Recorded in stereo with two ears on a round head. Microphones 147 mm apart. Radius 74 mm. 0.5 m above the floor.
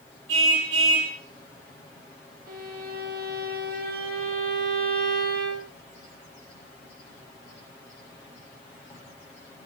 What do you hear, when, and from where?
0.3 s a car horn: 85° right, 7.5 m
2.5 s a violin: 65° right (ahead or behind), 3.5 m